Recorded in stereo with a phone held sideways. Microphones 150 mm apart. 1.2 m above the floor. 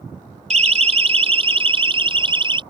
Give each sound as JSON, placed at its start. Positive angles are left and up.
{"t": 0.5, "sound": "a siren", "side_deg": -50}